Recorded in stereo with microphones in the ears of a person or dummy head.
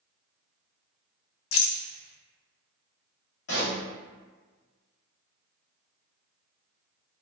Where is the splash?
No splash in this recording.